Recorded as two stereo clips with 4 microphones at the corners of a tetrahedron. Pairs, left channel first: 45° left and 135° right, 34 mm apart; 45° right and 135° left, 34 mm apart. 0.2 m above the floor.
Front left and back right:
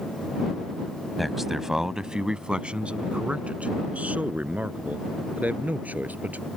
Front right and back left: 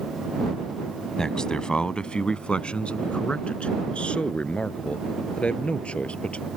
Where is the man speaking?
40° right; by 6.5 s 100° right.